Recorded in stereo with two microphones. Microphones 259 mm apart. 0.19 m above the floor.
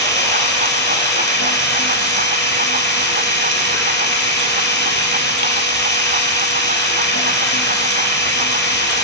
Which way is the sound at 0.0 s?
45° left (ahead or behind).